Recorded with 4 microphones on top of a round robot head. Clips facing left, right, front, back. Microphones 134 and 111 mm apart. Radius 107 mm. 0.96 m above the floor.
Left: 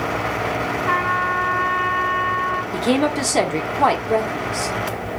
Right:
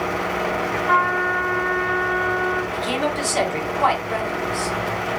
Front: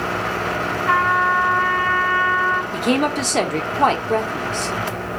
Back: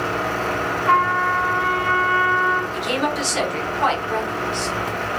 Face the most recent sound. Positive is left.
turn(degrees=40)